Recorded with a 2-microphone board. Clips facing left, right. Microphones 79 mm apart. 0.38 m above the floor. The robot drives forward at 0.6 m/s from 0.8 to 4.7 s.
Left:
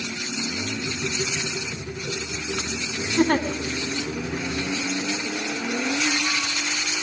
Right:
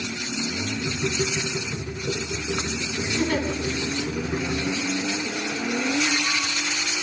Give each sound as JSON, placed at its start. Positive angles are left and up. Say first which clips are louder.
{"t": 3.2, "sound": "a giggle", "louder": "left 5 dB", "side_deg": 50, "distance_m": 2.5}